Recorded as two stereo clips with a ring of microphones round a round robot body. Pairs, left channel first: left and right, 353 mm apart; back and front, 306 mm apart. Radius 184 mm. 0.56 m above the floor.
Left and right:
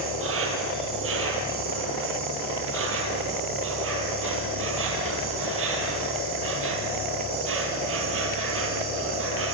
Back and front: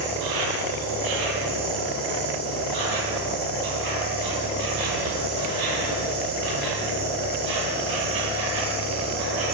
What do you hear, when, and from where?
0.0 s an insect: 35° right, 3.5 m